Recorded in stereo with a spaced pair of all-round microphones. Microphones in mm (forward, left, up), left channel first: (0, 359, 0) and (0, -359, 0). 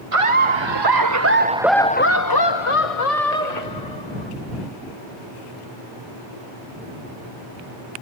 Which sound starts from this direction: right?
Laughter, at 0.1 s.